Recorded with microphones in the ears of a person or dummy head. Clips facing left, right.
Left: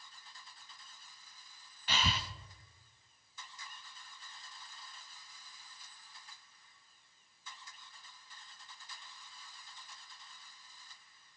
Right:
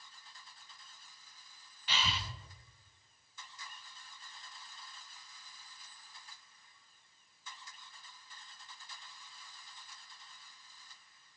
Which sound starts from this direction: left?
Breathing, at 1.9 s.